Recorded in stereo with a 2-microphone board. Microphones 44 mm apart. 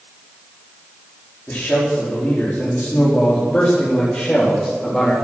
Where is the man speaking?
60° left (ahead or behind), 4.5 m; by 5.1 s 30° left (ahead or behind), 3.5 m.